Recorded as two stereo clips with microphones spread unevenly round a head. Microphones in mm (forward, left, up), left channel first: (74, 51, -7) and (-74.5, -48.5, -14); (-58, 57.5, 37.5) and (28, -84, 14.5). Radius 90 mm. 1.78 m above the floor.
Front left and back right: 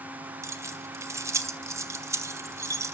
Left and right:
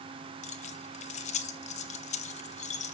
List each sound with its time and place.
0.4 s keys jangling: 140° left, 1.0 m